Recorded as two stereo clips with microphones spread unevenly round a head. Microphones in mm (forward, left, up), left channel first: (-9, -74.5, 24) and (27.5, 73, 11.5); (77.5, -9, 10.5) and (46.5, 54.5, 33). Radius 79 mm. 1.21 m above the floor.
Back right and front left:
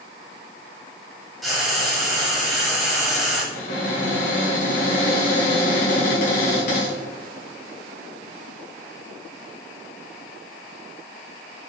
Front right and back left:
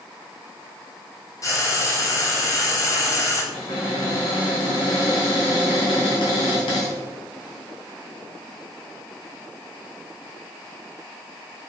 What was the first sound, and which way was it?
Frying, 15° right.